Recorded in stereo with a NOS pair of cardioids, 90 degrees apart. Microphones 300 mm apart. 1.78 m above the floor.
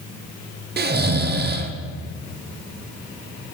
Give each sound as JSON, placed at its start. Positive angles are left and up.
{"t": 0.8, "sound": "snoring", "azimuth_deg": -35, "distance_m": 0.9}